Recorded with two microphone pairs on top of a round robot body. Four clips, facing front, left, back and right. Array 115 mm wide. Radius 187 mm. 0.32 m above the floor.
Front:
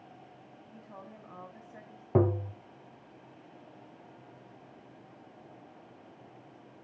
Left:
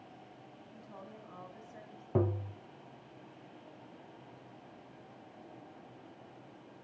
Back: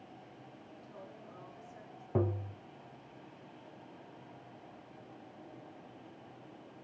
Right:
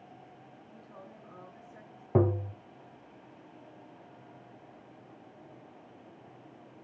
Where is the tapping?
40° right, 0.5 m.